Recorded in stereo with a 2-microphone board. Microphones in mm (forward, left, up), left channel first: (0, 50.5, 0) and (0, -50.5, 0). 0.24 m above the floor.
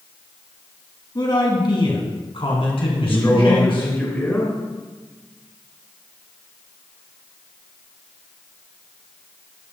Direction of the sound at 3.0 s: 20° left (ahead or behind).